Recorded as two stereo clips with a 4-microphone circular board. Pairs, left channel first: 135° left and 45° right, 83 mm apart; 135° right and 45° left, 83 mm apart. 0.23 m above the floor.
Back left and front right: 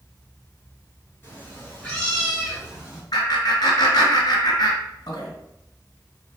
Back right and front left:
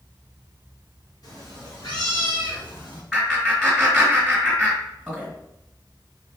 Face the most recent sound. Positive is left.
turn(degrees=140)